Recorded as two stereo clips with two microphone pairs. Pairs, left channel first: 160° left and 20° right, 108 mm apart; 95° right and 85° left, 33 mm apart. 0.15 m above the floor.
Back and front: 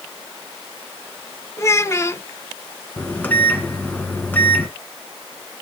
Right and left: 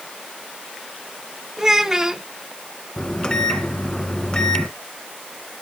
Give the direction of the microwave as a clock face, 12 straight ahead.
4 o'clock.